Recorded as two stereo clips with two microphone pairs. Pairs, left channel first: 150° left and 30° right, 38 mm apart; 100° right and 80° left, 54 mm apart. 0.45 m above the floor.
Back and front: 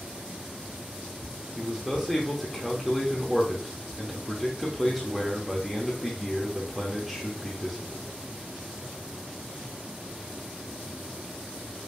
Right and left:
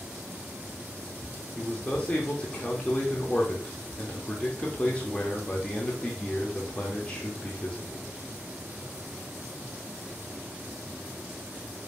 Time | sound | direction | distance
1.6 | a man speaking | 110° right | 0.7 m